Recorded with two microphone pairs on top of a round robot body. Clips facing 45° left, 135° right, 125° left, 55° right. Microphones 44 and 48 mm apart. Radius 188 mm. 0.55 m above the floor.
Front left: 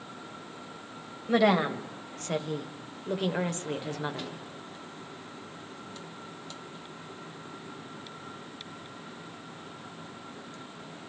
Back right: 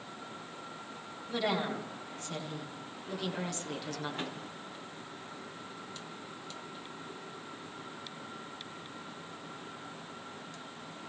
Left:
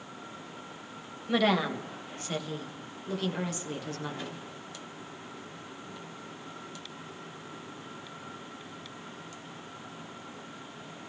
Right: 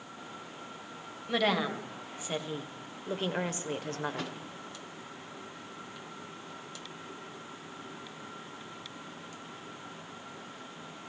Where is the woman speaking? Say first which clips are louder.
Front left 9 dB, left 3 dB; 35° left, 3.5 m; by 4.3 s 25° right, 2.5 m.